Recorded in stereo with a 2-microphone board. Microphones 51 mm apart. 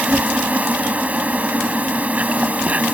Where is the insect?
30° right (ahead or behind).